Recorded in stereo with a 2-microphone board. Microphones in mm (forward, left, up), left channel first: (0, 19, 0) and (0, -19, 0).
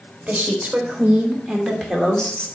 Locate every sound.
0.3 s a woman speaking: 35° right (ahead or behind), 3.5 m; by 2.5 s 25° left (ahead or behind), 2.5 m